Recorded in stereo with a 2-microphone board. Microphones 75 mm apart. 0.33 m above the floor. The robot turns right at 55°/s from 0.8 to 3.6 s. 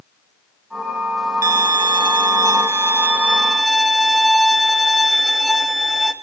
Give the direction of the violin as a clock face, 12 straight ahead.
4 o'clock.